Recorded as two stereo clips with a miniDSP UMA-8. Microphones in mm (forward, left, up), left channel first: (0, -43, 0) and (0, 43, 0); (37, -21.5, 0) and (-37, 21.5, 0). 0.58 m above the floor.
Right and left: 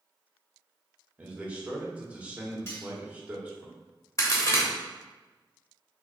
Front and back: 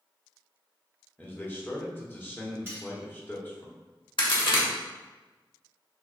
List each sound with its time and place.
1.2 s a man speaking: 25° left, 1.1 m
2.7 s cutlery clinking: 150° right, 1.9 m
4.2 s a crack: 40° right, 1.1 m